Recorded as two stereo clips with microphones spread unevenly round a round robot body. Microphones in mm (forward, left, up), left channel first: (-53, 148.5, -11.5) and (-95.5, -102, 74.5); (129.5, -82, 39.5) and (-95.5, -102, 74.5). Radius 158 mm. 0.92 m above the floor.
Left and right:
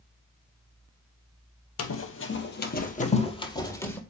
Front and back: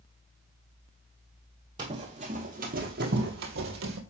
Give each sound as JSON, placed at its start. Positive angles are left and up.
{"t": 1.8, "sound": "running footsteps", "azimuth_deg": 120, "distance_m": 1.4}